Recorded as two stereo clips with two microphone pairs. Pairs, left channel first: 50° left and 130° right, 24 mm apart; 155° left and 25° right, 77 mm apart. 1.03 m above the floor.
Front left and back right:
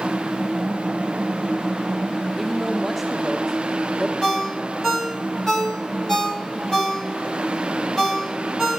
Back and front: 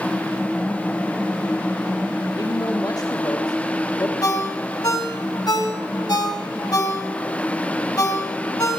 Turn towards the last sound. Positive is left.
turn(degrees=120)